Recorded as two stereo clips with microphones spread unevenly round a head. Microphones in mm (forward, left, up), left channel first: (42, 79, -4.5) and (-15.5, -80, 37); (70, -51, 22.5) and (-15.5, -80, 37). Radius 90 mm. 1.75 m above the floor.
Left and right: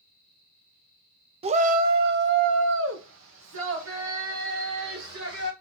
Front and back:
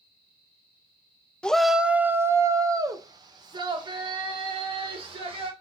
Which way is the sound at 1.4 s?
65° right.